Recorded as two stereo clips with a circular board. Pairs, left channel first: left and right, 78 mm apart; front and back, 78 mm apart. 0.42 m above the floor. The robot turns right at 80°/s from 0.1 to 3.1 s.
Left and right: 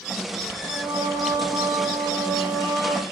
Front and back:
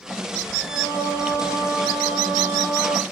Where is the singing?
30° right, 1.3 m; by 3.0 s 160° left, 1.3 m.